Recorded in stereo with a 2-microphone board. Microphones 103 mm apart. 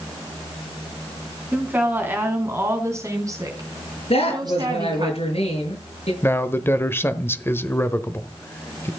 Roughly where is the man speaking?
Left.